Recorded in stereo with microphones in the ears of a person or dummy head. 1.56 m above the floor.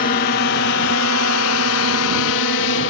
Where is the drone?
40° left (ahead or behind); by 2.9 s 65° left (ahead or behind).